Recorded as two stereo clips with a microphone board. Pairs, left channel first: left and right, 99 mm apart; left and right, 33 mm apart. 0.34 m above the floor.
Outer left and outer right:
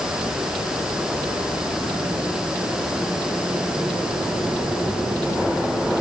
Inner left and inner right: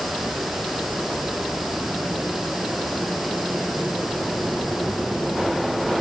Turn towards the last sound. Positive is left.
No sound to turn to.